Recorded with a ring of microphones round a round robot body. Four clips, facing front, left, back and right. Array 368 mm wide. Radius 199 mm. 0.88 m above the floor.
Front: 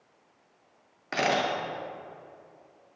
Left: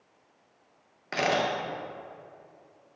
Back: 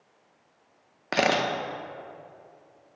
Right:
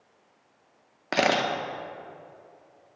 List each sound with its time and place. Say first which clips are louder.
1.1 s a camera shutter: right 3 dB, back 2 dB; 135° right, 0.8 m